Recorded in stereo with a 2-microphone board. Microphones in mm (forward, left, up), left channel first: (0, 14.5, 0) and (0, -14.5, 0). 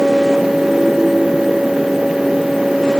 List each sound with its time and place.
Only background noise.